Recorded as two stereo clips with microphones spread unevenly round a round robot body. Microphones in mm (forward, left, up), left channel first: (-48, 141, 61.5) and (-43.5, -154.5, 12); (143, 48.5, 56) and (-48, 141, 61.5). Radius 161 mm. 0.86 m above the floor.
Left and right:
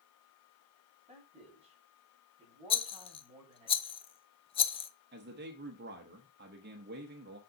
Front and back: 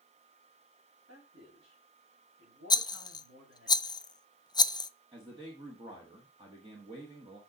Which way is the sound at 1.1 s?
160° right.